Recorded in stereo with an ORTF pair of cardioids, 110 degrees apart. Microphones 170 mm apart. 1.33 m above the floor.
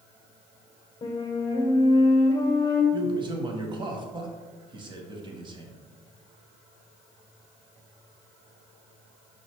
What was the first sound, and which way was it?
A flute, 25° left.